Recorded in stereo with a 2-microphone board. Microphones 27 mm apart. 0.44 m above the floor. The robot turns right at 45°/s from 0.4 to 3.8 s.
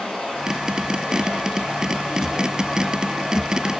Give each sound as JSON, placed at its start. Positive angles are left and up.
{"t": 0.0, "sound": "running water", "azimuth_deg": 25, "distance_m": 4.5}